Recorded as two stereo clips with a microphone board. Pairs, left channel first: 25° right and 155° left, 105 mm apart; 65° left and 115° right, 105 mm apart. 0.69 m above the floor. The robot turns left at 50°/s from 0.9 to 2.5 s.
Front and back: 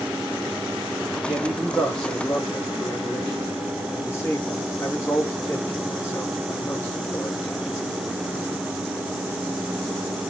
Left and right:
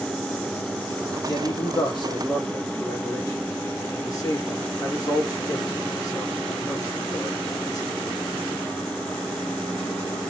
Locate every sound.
1.3 s a man speaking: 95° left, 1.5 m; by 7.9 s 35° left, 1.5 m